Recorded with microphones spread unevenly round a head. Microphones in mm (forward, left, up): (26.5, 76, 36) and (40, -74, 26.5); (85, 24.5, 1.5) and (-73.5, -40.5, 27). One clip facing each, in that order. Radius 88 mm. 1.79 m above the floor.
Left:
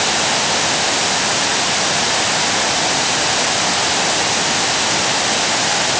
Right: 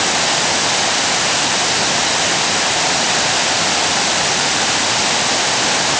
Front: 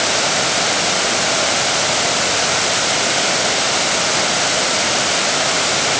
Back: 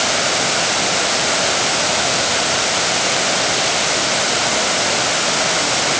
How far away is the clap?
I don't hear a clap.